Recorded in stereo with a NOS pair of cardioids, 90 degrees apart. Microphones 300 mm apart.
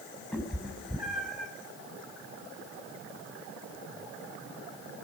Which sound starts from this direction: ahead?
A cat meowing, at 0.3 s.